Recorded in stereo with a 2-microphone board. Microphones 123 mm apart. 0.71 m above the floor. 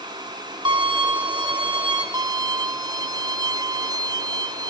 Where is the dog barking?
I don't hear a dog barking.